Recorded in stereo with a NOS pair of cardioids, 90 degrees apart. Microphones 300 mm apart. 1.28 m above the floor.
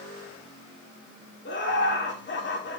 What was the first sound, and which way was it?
Laughter, 40° left.